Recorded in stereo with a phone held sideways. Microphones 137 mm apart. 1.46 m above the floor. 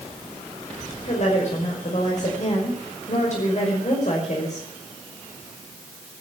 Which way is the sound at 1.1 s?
55° left (ahead or behind).